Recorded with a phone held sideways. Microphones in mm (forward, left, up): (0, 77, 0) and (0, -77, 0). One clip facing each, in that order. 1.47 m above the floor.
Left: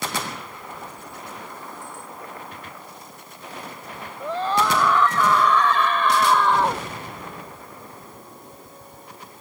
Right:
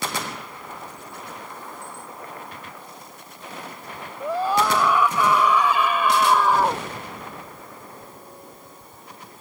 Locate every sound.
4.2 s a scream: 10° right (ahead or behind); by 6.8 s 5° right (ahead or behind)